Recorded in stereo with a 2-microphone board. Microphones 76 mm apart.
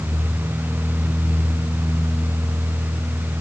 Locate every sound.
Only background noise.